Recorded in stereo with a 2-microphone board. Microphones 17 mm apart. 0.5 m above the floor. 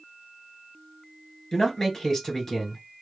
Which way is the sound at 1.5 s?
30° left (ahead or behind).